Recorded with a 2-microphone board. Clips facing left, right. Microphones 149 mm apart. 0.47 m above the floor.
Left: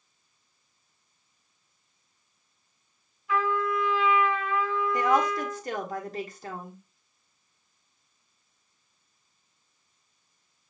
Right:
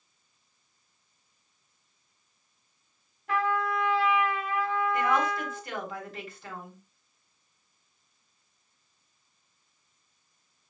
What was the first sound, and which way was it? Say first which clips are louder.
A trumpet: left 1 dB; 80° right.